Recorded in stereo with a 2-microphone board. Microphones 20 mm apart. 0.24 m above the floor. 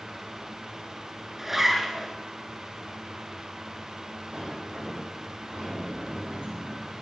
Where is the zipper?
15° right (ahead or behind), 1.3 m.